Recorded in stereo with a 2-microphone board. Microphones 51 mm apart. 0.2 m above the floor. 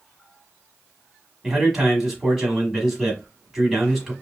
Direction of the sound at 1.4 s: 10° right (ahead or behind).